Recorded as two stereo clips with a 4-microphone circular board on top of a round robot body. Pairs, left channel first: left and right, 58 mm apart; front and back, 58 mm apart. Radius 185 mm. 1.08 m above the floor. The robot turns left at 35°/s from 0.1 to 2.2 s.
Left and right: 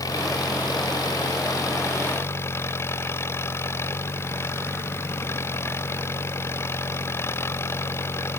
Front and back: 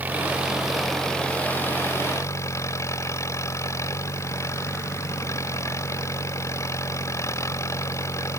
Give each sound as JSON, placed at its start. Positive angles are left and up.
{"t": 0.0, "sound": "an engine running", "azimuth_deg": 115}